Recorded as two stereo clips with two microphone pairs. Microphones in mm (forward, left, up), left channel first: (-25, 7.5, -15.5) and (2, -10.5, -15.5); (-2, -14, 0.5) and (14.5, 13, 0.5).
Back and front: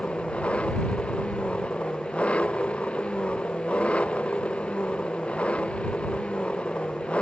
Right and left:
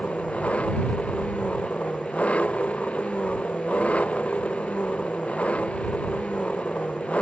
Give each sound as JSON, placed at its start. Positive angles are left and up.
{"t": 0.0, "sound": "an engine running", "azimuth_deg": -165}